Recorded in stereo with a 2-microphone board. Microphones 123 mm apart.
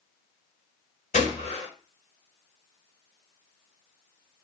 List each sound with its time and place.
1.1 s a gunshot: 85° left, 1.8 m